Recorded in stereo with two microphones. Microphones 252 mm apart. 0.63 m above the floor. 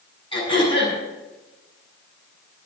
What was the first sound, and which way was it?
Throat clearing, 20° left (ahead or behind).